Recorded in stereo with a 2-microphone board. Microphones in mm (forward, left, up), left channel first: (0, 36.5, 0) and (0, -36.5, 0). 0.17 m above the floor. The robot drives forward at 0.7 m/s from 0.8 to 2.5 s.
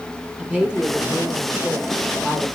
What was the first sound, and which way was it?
A woman speaking, 10° right (ahead or behind).